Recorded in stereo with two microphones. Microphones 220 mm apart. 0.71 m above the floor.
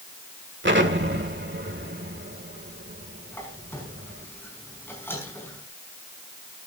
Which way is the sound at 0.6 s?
55° right (ahead or behind).